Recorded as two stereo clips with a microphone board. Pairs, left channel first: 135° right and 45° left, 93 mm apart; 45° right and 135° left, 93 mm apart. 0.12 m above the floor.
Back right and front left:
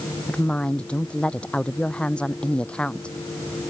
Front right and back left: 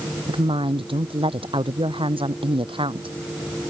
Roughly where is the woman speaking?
Behind left.